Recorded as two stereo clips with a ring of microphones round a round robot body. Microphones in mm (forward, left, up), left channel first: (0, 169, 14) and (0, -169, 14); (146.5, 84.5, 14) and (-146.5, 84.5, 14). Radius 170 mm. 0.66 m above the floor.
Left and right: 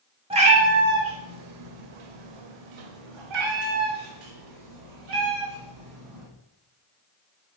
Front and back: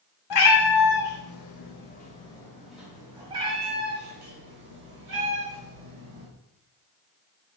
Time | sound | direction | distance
0.3 | a cat meowing | 15° right | 1.1 m